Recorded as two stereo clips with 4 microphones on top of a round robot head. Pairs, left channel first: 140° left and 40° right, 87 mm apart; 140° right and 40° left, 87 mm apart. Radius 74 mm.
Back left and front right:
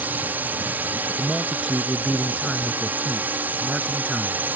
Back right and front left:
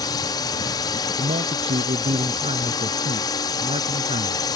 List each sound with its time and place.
0.0 s a drone: 105° right
1.2 s a man speaking: 50° left